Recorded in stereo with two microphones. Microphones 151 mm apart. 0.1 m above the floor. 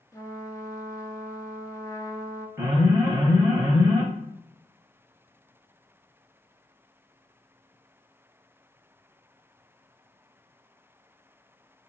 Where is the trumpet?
20° left (ahead or behind), 0.5 m.